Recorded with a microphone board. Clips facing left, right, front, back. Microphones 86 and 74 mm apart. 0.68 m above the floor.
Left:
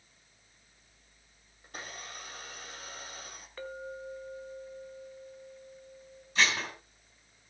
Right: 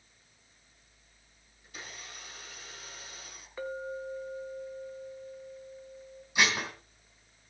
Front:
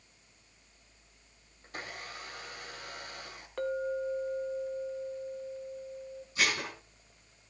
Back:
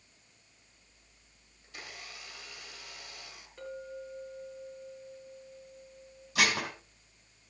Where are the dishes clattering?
170° right, 3 m.